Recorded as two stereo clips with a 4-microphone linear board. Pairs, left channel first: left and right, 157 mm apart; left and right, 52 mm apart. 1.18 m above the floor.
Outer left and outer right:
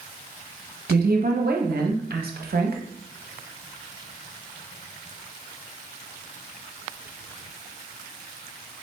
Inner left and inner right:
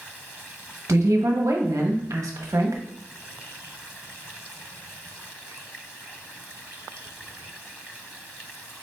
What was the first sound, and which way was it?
A woman speaking, 85° right.